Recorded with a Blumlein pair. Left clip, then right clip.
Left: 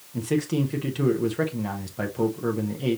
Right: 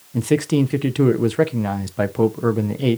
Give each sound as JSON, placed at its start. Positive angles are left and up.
{"t": 0.1, "sound": "a man speaking", "azimuth_deg": -25, "distance_m": 0.6}